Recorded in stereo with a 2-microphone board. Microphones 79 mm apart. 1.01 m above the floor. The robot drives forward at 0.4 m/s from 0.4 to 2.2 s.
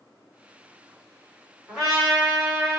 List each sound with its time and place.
1.7 s a trumpet: 10° right (ahead or behind), 1.8 m